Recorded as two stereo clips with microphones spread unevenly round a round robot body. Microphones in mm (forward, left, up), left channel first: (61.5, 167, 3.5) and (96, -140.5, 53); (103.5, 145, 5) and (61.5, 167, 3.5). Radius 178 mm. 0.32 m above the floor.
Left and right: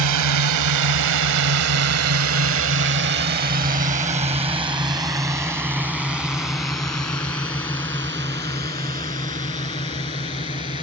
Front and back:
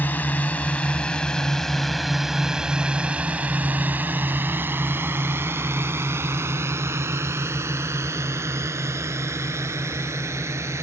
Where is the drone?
85° right; by 10.8 s 170° left.